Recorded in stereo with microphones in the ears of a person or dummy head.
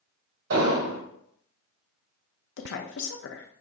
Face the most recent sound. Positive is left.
turn(degrees=65)  # may be behind; listen again after turning